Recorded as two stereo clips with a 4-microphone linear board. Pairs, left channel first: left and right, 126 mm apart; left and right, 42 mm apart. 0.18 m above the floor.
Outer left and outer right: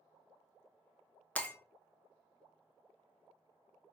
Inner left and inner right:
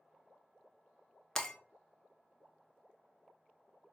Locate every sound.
1.4 s breaking glass: 10° left (ahead or behind), 0.7 m